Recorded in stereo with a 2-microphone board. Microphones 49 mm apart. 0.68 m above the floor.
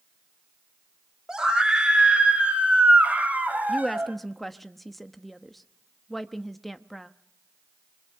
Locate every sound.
1.3 s a scream: 15° right (ahead or behind), 2.5 m; by 4.2 s 35° right (ahead or behind), 4 m
3.7 s a woman speaking: centre (ahead or behind), 0.9 m